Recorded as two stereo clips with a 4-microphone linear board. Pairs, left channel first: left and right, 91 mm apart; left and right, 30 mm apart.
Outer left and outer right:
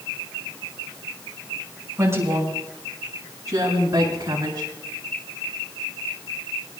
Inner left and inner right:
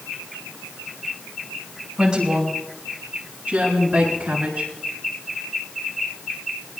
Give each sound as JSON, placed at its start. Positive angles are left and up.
{"t": 2.0, "sound": "a woman speaking", "side_deg": -30, "distance_m": 6.5}